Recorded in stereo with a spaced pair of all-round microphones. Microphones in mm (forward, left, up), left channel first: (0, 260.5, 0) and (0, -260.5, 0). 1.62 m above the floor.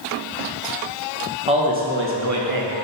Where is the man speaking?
10° right (ahead or behind), 1.4 m; by 2.7 s 45° right (ahead or behind), 0.9 m.